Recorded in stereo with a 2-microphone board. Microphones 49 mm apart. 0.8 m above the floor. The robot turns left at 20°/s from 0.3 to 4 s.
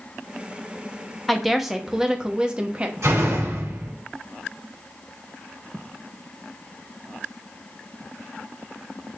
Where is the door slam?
75° right (ahead or behind), 2.5 m; by 3.9 s 85° right, 2.5 m.